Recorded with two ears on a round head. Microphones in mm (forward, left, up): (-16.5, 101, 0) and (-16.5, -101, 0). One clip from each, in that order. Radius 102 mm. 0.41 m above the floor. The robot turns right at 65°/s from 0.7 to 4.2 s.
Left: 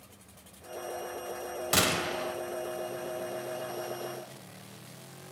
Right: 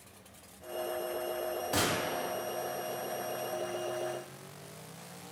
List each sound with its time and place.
1.7 s a gunshot: 115° left, 0.8 m; by 2.4 s 160° left, 0.8 m